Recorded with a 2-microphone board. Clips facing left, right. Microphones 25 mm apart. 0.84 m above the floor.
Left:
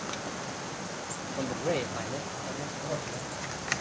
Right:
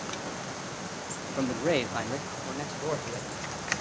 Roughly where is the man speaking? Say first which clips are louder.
Right 4 dB; right.